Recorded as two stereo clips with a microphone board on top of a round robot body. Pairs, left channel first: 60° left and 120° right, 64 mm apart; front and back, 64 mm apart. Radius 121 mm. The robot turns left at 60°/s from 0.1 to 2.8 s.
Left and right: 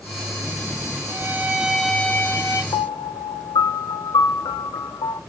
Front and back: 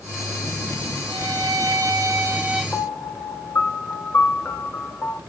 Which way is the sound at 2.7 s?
70° left.